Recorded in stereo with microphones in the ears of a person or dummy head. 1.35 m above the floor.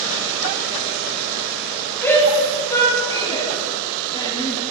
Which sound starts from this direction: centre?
A shout, at 2.0 s.